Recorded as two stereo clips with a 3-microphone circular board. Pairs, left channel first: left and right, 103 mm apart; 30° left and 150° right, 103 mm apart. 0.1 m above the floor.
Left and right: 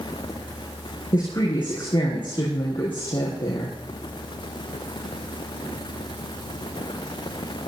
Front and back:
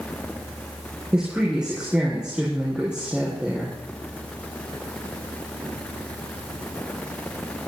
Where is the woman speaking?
130° left, 5.5 m.